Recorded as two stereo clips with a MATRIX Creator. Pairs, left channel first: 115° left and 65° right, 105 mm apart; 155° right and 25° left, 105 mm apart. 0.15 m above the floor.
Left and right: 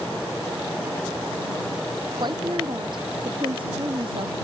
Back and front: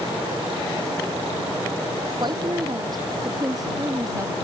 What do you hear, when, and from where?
2.2 s a woman speaking: 25° right; by 4.3 s 35° right